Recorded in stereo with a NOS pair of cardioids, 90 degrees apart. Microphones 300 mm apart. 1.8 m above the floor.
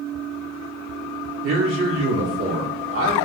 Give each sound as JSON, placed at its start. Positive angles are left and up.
{"t": 1.4, "sound": "a man speaking", "azimuth_deg": -50, "distance_m": 1.3}